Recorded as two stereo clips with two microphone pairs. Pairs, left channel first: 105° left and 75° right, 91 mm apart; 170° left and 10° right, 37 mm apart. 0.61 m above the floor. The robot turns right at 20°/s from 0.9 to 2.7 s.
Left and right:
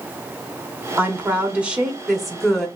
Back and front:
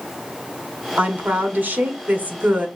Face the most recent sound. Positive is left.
turn(degrees=20)